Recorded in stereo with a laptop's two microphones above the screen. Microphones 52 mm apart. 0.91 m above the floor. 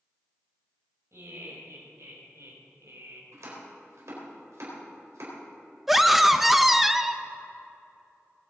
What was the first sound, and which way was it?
Laughter, 70° right (ahead or behind).